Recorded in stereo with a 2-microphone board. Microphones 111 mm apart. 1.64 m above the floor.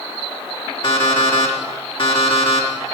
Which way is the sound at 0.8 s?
55° left (ahead or behind).